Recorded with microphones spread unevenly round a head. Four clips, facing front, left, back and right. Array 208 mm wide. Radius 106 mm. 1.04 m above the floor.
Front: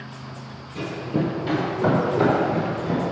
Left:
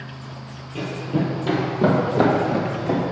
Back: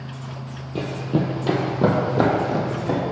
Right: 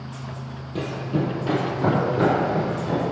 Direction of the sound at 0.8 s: 165° right.